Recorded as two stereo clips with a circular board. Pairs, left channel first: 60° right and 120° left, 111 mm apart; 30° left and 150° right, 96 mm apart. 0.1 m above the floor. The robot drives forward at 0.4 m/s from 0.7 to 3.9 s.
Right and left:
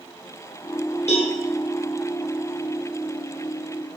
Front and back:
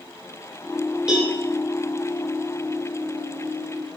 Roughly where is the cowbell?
Ahead right.